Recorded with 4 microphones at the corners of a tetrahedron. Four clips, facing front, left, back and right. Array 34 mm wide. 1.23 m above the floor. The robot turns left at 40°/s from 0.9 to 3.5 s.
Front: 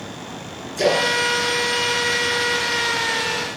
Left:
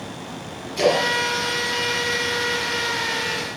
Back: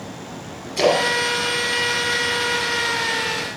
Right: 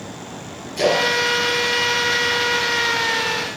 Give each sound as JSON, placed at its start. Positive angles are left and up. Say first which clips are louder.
{"t": 0.8, "sound": "a splash", "louder": "right 1 dB, back 1 dB", "azimuth_deg": 175, "distance_m": 8.5}